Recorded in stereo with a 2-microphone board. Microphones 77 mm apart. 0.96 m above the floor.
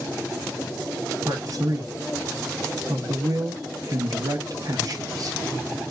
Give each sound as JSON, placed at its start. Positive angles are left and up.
{"t": 1.2, "sound": "a man speaking", "side_deg": -50, "distance_m": 1.0}